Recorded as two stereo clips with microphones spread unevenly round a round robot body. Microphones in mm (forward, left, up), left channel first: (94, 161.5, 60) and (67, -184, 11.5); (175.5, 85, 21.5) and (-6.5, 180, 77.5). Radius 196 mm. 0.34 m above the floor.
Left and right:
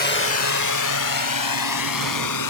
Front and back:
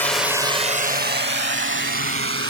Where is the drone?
30° left; by 2.5 s 130° left.